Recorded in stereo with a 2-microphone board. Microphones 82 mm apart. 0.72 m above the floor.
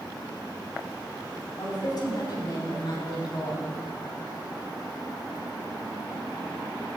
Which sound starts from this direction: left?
A woman speaking, at 1.6 s.